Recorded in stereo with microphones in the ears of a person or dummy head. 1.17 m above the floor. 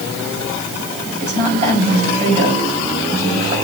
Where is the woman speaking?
30° right (ahead or behind), 6 m.